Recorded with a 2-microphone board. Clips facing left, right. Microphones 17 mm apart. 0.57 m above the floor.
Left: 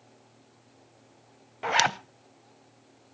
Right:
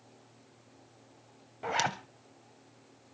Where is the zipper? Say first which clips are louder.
Left 7 dB; 45° left (ahead or behind), 0.6 m.